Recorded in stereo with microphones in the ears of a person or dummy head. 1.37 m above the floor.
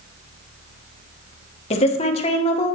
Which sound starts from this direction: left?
A woman speaking, at 1.7 s.